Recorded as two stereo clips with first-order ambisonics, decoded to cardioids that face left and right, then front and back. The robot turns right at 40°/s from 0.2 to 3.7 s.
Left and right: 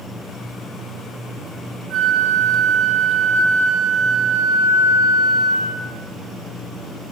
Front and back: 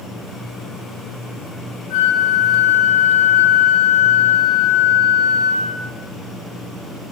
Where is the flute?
35° right, 1.3 m; by 5.9 s 35° left, 1.3 m.